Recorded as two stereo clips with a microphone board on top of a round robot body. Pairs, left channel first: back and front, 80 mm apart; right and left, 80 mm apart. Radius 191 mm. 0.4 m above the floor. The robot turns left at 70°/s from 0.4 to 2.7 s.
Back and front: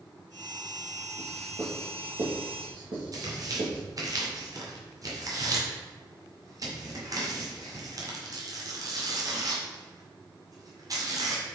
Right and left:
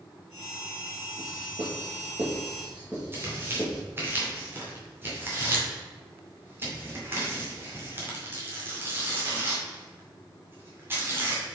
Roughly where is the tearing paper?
Ahead left.